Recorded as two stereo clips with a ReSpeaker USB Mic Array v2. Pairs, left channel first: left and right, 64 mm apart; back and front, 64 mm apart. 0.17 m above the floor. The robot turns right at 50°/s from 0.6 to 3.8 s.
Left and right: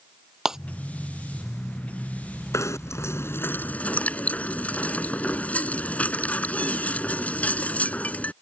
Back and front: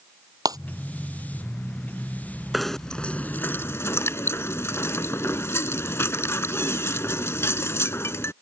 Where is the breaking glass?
5° right.